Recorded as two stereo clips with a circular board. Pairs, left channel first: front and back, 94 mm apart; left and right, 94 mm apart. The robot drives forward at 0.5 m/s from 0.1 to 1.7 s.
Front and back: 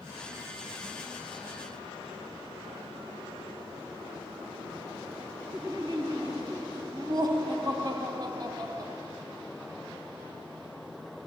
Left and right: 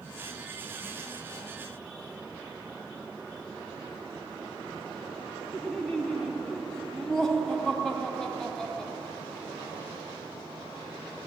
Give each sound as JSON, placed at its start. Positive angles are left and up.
{"t": 5.5, "sound": "laughter", "azimuth_deg": 170, "distance_m": 0.7}